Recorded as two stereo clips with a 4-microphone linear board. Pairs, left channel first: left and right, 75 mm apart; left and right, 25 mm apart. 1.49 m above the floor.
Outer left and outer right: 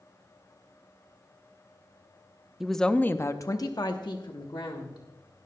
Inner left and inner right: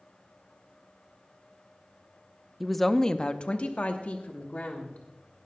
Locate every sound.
2.6 s a woman speaking: 5° right (ahead or behind), 0.6 m; by 5.0 s 75° left (ahead or behind), 1.5 m